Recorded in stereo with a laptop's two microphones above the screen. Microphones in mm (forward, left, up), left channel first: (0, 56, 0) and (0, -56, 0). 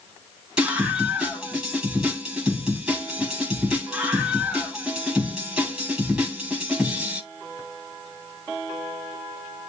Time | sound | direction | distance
0.6 | a scream | 5° right (ahead or behind) | 6.5 m